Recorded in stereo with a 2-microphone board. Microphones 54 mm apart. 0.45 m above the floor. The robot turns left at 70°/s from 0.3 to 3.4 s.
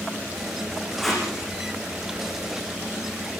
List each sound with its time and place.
1.0 s tape being pulled: 10° left (ahead or behind), 9 m; by 1.2 s 10° right (ahead or behind), 9 m